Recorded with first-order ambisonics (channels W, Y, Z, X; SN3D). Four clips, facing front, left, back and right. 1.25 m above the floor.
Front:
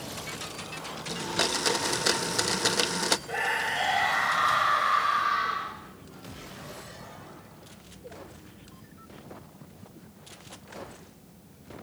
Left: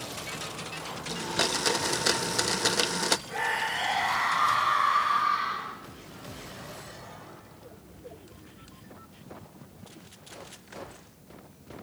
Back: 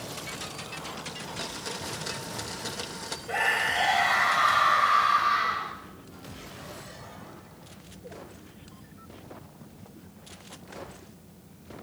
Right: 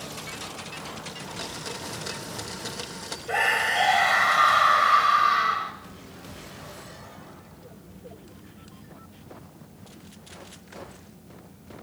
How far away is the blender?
About 0.7 m.